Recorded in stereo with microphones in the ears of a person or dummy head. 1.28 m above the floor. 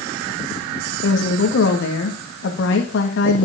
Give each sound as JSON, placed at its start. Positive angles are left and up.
{"t": 1.0, "sound": "a woman speaking", "side_deg": 70, "distance_m": 1.8}